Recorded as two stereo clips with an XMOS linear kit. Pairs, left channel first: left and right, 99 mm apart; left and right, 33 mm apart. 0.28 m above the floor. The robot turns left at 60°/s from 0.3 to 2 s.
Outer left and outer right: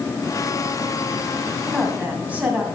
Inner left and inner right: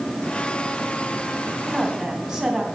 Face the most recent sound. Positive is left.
turn(degrees=-15)  # may be behind; listen again after turning